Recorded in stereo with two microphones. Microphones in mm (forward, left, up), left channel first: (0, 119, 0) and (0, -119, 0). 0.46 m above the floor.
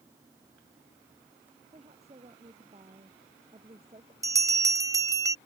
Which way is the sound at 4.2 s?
15° right (ahead or behind).